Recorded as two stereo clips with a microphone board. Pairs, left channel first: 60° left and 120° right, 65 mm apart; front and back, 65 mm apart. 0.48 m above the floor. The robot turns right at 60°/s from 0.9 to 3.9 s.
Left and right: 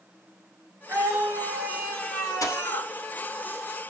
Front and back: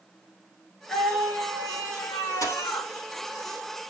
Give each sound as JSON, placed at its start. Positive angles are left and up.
{"t": 0.9, "sound": "a scream", "azimuth_deg": -75, "distance_m": 1.8}
{"t": 2.4, "sound": "a dropped coin", "azimuth_deg": 30, "distance_m": 2.0}